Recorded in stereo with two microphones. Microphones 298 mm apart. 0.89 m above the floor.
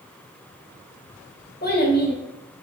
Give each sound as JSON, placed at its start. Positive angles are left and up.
{"t": 1.6, "sound": "a child speaking", "side_deg": 35, "distance_m": 0.8}